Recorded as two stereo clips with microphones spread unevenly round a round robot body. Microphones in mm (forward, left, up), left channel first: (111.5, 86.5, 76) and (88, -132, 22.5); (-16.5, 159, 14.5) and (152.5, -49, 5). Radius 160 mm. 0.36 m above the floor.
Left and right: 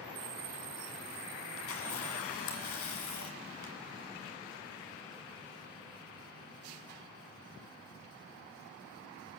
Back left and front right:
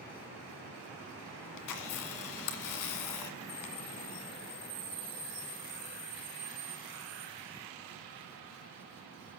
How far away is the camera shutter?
About 2 m.